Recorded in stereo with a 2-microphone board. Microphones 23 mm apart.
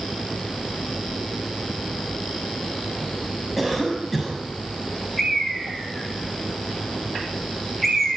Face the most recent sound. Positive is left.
turn(degrees=10)  # may be behind; listen again after turning